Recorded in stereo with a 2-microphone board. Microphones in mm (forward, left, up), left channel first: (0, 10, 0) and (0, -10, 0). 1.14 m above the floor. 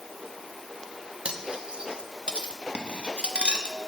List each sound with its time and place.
1.2 s cutlery clinking: 75° right (ahead or behind), 1.1 m